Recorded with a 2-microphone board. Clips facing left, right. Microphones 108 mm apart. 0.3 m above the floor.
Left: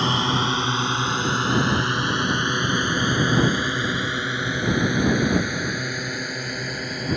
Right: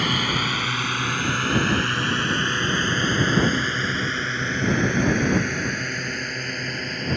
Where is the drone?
25° left (ahead or behind); by 7.2 s 5° left (ahead or behind).